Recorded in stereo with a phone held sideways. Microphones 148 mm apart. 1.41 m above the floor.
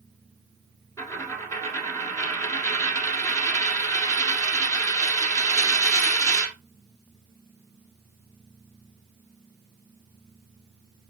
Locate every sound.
1.0 s a dropped coin: 20° left (ahead or behind), 1.6 m